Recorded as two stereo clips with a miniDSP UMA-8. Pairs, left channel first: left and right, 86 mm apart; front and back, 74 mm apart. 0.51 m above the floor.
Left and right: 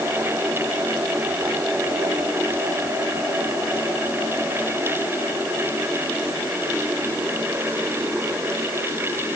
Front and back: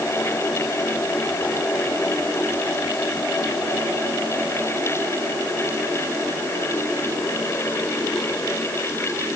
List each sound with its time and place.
Only background noise.